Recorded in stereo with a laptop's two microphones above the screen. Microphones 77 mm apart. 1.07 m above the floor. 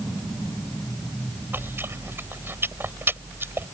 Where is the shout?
I don't hear a shout.